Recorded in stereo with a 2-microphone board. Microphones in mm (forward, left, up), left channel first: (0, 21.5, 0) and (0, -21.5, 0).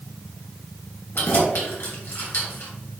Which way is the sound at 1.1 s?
60° left (ahead or behind).